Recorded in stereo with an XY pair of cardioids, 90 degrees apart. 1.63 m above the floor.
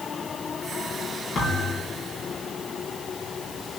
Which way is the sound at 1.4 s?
55° left.